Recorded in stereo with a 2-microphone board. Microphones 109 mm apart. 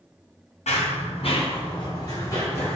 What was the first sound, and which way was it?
Running footsteps, 80° left.